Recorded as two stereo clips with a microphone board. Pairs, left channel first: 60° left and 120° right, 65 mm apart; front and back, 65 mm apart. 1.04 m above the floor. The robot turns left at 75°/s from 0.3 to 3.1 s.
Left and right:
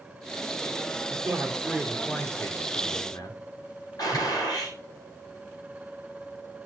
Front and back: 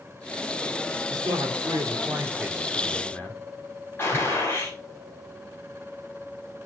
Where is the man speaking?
150° right, 2.5 m; by 3.4 s 60° left, 2.5 m.